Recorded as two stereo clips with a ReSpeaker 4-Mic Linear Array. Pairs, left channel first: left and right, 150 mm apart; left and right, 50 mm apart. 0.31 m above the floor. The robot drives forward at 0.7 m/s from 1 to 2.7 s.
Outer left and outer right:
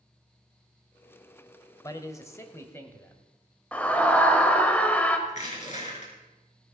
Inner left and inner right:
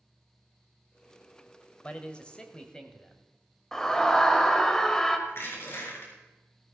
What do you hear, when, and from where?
1.8 s a man speaking: 25° left (ahead or behind), 0.9 m; by 3.2 s 15° left (ahead or behind), 1.3 m
3.7 s a scream: 10° left (ahead or behind), 1.1 m
5.3 s crushing: 50° left (ahead or behind), 4 m